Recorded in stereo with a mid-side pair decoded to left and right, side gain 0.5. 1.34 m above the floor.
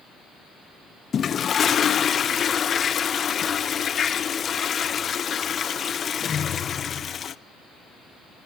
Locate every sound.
1.1 s a toilet flushing: 45° left, 0.7 m